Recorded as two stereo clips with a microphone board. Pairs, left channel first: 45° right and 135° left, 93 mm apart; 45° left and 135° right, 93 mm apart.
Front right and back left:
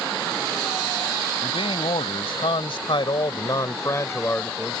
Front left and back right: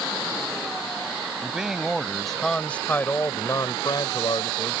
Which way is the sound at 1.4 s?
55° right.